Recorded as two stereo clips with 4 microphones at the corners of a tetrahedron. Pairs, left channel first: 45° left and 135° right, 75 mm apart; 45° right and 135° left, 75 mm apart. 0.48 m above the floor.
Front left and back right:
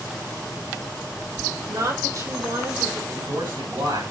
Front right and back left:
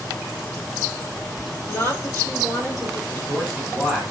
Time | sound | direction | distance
1.7 | a woman speaking | 95° right | 6 m
3.1 | a man speaking | 125° right | 8 m